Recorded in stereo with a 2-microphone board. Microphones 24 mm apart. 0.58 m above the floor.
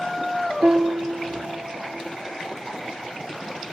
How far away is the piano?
About 0.5 m.